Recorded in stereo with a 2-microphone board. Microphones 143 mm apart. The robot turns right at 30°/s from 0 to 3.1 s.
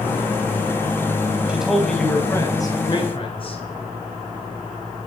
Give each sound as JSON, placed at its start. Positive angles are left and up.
{"t": 1.5, "sound": "a man speaking", "azimuth_deg": -10, "distance_m": 3.0}